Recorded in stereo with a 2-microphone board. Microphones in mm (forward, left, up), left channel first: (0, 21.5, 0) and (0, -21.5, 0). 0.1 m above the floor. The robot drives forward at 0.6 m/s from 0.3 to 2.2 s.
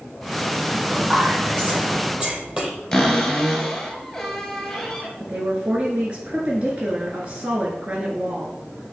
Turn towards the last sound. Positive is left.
turn(degrees=-30)  # may be behind; listen again after turning